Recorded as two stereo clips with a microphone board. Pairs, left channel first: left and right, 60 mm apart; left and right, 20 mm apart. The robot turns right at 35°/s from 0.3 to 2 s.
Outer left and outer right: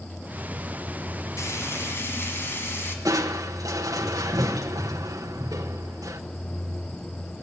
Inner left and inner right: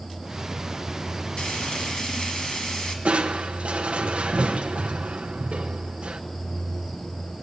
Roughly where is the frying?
Left.